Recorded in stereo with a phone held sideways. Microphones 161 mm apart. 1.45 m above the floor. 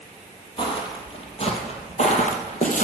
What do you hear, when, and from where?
0.6 s footsteps: 30° left (ahead or behind), 2.5 m; by 2.8 s 55° left (ahead or behind), 2.5 m